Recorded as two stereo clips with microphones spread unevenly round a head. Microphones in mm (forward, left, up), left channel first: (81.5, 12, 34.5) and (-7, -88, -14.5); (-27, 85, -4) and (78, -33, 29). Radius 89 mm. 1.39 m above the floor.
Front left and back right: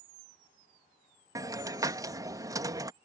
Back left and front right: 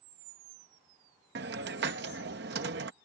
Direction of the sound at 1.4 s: 60° right.